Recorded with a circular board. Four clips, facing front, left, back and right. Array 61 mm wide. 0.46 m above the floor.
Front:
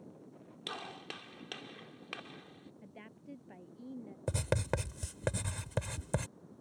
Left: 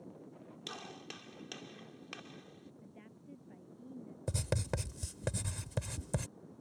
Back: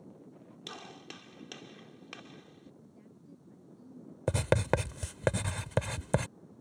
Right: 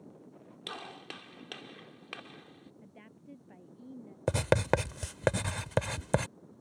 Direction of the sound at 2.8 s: 20° right.